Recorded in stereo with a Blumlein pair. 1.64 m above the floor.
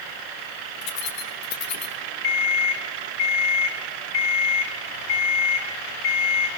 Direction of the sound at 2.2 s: 50° left.